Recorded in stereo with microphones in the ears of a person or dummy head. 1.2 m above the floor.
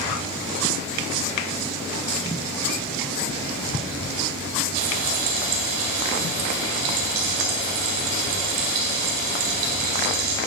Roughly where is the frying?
Right.